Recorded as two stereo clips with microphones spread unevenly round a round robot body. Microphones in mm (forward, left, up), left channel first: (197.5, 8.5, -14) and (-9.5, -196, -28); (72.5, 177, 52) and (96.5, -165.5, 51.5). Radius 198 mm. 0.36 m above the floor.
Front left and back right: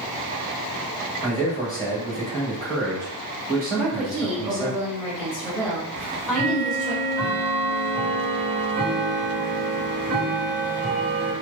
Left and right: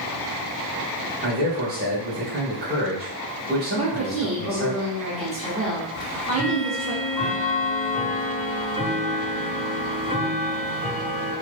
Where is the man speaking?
30° right, 1.7 m.